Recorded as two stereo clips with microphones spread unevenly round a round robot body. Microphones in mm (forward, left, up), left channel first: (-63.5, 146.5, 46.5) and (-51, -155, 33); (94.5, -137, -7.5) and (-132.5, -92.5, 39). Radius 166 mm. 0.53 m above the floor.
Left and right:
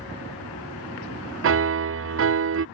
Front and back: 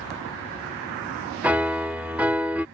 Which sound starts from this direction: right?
A piano, at 1.4 s.